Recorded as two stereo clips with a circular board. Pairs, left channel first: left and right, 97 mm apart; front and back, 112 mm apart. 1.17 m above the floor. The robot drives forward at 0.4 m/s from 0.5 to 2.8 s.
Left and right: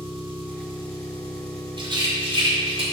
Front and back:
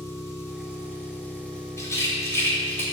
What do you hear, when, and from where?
0.0 s an engine running: 65° right, 1.9 m; by 2.9 s 95° right, 1.7 m
1.8 s a rattle: 60° right, 3.5 m; by 2.8 s 70° right, 3 m